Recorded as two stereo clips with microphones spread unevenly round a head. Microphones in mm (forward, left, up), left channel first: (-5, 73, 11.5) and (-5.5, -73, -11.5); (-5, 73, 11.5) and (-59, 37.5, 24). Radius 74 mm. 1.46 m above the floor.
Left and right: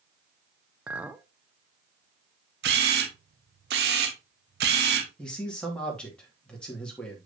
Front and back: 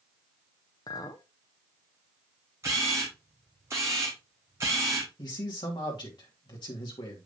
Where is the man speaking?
5° left, 2 m.